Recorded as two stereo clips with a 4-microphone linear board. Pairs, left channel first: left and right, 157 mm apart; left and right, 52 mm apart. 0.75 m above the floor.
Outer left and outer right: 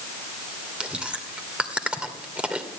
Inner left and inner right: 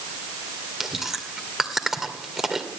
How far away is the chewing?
About 2.5 m.